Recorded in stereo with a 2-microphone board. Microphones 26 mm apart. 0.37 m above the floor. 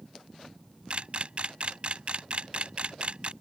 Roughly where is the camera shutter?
Right.